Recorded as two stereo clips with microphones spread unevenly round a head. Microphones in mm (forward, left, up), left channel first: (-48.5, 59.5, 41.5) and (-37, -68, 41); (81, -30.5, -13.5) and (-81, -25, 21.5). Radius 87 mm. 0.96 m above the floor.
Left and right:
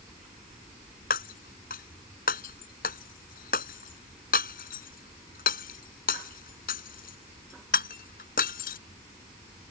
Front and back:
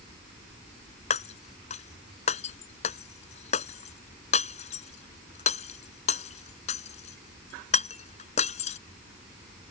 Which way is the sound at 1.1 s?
55° left.